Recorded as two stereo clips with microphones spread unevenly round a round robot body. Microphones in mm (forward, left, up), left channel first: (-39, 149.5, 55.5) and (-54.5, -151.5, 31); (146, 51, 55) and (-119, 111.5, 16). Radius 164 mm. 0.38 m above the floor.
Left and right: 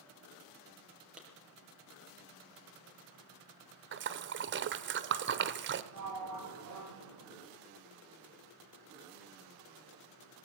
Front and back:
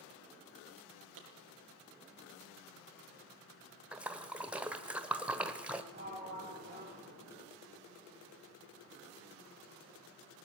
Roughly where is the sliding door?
Behind right.